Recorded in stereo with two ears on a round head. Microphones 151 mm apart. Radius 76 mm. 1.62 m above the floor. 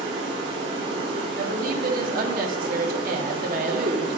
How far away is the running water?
About 3.5 m.